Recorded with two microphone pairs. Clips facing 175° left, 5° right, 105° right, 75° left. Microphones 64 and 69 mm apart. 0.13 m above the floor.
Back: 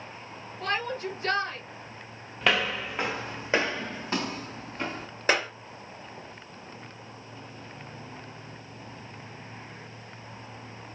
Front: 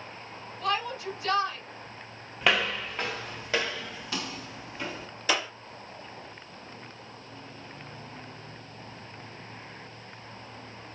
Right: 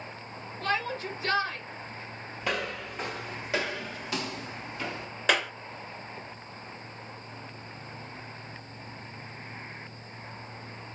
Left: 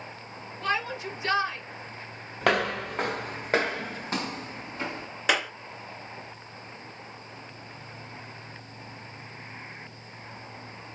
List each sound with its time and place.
0.6 s a shout: 145° left, 2 m
2.4 s footsteps: 85° left, 0.7 m; by 5.1 s 135° left, 1.8 m
5.3 s a clap: 160° left, 1.2 m